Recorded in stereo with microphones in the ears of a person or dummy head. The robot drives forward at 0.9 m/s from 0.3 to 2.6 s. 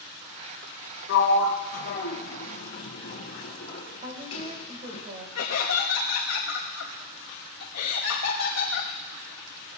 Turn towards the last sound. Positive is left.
turn(degrees=75)  # may be behind; listen again after turning